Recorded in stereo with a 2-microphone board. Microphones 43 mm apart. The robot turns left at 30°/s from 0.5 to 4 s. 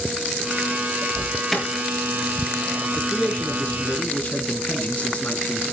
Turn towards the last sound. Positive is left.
turn(degrees=140)